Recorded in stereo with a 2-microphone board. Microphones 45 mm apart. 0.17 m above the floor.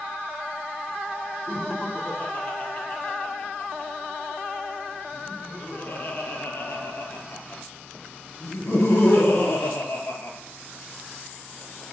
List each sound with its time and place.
1.5 s laughter: 30° left (ahead or behind), 5 m; by 10.4 s 65° left (ahead or behind), 3 m